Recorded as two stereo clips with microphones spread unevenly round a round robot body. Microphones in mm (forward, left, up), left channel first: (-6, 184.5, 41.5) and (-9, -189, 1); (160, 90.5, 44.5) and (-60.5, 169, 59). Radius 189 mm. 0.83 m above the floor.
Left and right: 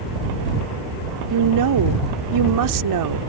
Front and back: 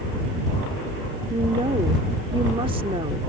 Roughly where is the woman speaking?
Behind right.